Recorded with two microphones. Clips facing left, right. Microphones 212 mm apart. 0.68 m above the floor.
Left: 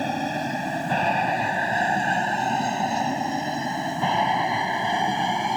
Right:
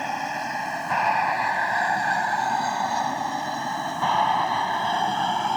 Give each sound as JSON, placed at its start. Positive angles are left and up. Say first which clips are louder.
{"t": 0.0, "sound": "an aircraft", "louder": "left 5 dB", "side_deg": 35}